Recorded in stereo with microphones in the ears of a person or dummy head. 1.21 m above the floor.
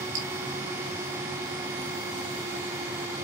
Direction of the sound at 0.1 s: 75° right (ahead or behind).